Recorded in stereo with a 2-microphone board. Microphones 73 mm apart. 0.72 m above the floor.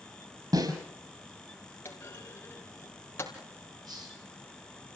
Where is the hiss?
60° right (ahead or behind), 9 m.